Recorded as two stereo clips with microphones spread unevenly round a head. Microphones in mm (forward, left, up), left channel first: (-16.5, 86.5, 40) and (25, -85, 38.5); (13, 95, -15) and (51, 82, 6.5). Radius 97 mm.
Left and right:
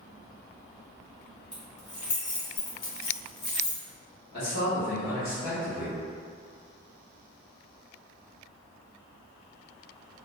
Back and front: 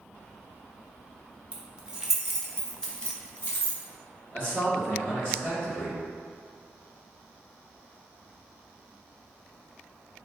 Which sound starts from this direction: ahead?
Keys jangling, at 1.5 s.